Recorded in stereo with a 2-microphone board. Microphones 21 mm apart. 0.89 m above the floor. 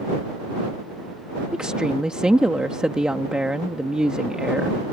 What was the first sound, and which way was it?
A woman speaking, 55° right (ahead or behind).